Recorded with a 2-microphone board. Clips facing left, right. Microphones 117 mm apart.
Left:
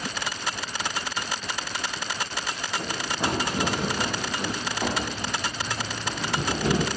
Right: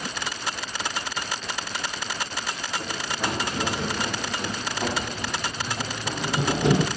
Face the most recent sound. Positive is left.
turn(degrees=-20)  # may be behind; listen again after turning